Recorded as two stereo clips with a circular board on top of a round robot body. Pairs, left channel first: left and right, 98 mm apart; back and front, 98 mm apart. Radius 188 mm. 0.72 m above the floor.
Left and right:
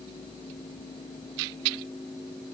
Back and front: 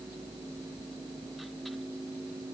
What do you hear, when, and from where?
Only background noise.